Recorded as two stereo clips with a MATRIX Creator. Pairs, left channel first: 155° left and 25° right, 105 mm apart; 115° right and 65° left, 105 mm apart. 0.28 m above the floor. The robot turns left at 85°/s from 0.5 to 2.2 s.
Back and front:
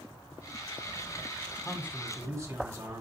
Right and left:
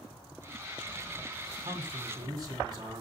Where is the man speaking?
75° left, 1.6 m; by 3.0 s 25° left, 1.6 m.